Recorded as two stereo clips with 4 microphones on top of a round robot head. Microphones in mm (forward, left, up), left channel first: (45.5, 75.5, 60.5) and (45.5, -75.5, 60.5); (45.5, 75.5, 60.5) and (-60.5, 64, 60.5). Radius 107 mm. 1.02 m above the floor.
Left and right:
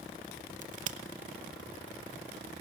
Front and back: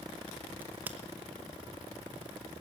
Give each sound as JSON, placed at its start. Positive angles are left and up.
{"t": 0.6, "sound": "a crack", "azimuth_deg": -100, "distance_m": 0.6}